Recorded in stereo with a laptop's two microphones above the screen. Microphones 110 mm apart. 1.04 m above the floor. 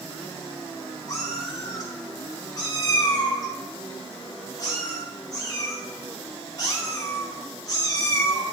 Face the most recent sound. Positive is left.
turn(degrees=35)  # may be behind; listen again after turning